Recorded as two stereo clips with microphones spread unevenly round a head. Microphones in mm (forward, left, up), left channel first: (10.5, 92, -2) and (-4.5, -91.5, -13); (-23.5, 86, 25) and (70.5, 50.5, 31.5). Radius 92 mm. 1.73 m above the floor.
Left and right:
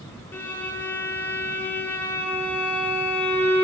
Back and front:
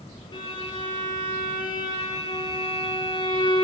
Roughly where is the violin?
Behind left.